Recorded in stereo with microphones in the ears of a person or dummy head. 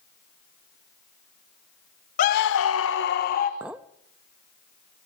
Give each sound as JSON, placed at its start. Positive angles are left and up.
{"t": 2.2, "sound": "a scream", "side_deg": 45, "distance_m": 0.8}
{"t": 3.6, "sound": "a clink", "side_deg": -10, "distance_m": 0.8}